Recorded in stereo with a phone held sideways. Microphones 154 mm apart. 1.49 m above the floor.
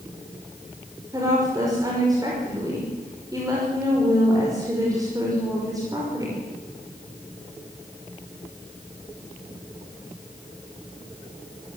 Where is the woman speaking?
25° right (ahead or behind), 5.5 m.